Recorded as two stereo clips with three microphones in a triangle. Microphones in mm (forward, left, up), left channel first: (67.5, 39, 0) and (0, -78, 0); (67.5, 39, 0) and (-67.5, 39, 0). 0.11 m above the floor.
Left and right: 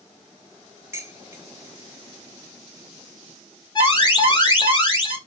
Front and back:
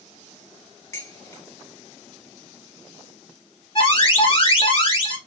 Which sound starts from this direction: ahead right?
Dishes clattering, at 0.9 s.